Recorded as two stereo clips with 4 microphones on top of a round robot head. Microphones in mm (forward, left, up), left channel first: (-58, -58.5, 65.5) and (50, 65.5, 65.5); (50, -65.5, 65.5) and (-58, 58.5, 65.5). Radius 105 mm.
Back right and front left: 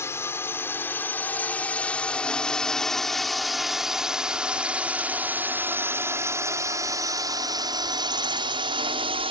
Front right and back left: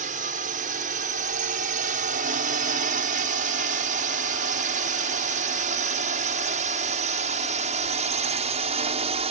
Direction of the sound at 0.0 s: 155° left.